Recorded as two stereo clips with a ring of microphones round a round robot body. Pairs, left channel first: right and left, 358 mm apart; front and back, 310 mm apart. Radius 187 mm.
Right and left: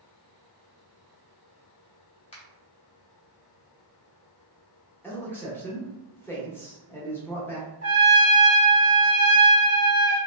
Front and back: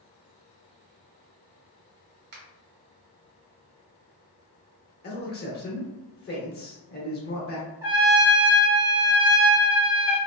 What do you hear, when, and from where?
2.3 s a finger snap: 155° right, 0.9 m
5.0 s a man speaking: 10° right, 0.9 m
7.8 s a trumpet: 110° right, 1.6 m